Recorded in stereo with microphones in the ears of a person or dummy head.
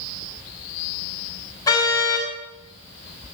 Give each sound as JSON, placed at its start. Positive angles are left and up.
{"t": 1.7, "sound": "a car horn", "side_deg": 20, "distance_m": 5.0}